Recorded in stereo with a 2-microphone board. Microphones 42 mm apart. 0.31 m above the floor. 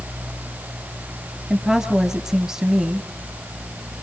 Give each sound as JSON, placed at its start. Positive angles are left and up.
{"t": 1.5, "sound": "a woman speaking", "side_deg": -10, "distance_m": 2.0}